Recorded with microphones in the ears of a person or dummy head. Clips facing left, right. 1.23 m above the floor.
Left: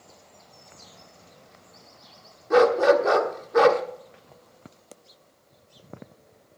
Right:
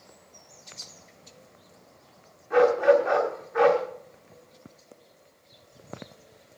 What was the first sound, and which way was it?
A dog barking, 55° left (ahead or behind).